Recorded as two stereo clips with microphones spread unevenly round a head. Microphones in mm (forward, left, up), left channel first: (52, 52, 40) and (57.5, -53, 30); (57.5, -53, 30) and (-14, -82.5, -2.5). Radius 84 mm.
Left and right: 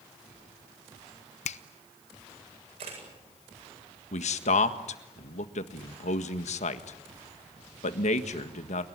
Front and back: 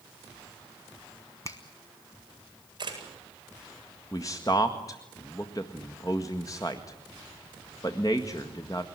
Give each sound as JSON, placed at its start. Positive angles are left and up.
{"t": 1.4, "sound": "a finger snap", "azimuth_deg": 90, "distance_m": 1.0}
{"t": 2.8, "sound": "a camera shutter", "azimuth_deg": -130, "distance_m": 8.5}
{"t": 4.1, "sound": "a man speaking", "azimuth_deg": 90, "distance_m": 1.7}